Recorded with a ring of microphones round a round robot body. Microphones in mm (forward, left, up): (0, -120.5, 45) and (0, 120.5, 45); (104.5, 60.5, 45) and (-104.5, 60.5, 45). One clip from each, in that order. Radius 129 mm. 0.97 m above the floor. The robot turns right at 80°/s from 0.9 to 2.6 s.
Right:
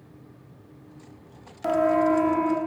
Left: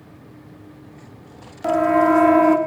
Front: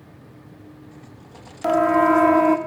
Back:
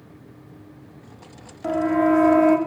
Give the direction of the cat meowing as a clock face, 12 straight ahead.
I don't hear a cat meowing.